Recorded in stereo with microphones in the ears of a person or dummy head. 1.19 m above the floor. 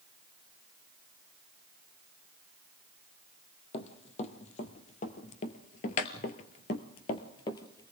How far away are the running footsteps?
About 2.5 m.